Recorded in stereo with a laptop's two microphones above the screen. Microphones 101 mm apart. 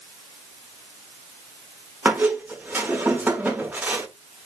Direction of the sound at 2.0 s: 20° right (ahead or behind).